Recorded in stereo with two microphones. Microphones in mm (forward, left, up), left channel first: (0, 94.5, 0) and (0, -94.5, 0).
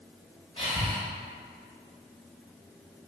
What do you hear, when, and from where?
0.6 s breathing: 30° left (ahead or behind), 1.0 m